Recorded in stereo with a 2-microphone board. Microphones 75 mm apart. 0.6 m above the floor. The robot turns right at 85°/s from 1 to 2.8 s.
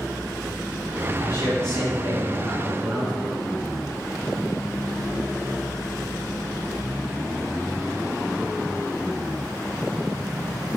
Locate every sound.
1.2 s a man speaking: 50° left, 3 m; by 3.3 s 170° right, 3 m